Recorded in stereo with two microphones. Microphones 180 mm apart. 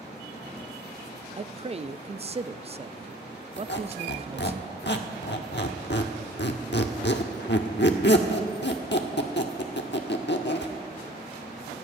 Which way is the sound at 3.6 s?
75° left (ahead or behind).